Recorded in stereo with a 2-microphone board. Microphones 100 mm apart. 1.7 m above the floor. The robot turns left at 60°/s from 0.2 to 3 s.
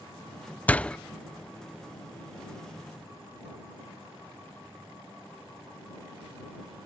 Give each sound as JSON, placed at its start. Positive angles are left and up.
{"t": 0.7, "sound": "a door slam", "side_deg": 15}